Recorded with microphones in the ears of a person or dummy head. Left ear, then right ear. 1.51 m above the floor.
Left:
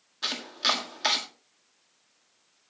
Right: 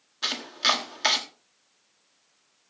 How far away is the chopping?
About 1.6 m.